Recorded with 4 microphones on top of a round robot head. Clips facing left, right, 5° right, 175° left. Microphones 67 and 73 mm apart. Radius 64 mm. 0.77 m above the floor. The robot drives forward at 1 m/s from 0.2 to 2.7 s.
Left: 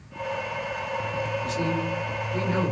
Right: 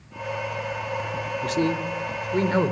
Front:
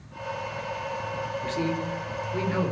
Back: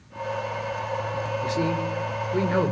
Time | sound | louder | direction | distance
1.4 | a man speaking | right 3 dB, back 3 dB | 105° right | 3 m